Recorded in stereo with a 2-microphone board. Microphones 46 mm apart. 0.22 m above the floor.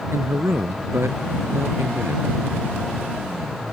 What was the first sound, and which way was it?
A man speaking, 70° right (ahead or behind).